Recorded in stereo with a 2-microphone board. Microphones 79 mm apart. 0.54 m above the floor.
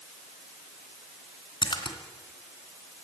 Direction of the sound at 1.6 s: 75° left (ahead or behind).